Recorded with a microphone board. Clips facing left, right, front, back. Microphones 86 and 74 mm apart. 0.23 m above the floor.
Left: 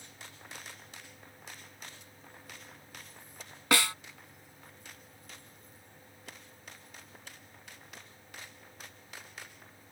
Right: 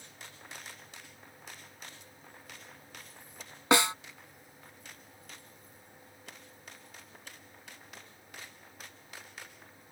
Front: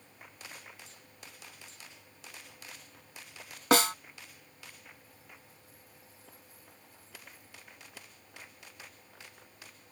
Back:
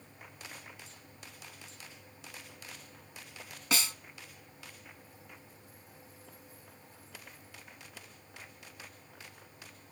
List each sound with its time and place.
3.7 s a snare drum: 25° right